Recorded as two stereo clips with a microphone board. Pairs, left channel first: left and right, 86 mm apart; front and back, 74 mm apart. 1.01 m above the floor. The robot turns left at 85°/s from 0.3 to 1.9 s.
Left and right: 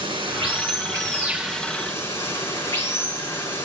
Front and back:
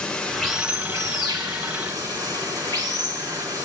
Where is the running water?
85° right, 3.5 m; by 3.7 s 140° left, 3.5 m.